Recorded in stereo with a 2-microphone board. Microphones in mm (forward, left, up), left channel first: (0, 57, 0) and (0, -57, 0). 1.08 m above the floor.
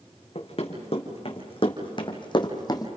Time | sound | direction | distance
0.3 | running footsteps | 60° left (ahead or behind) | 3.5 m